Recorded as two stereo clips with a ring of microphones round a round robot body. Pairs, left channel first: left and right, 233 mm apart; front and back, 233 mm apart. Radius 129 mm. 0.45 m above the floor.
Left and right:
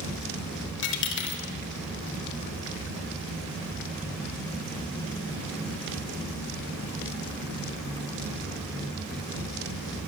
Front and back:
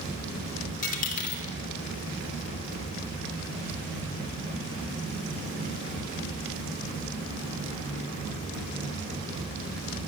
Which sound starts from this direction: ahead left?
A dropped coin, at 0.8 s.